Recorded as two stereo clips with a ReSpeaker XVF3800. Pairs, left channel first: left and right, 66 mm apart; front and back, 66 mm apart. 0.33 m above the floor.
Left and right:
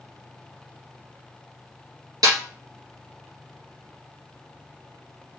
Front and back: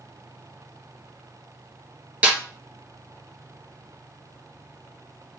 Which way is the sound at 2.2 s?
110° right.